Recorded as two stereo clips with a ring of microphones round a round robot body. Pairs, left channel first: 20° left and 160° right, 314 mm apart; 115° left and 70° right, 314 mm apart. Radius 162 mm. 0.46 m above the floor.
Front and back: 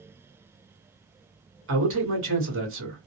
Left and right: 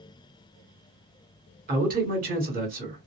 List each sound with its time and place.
1.7 s a man speaking: 120° right, 1.8 m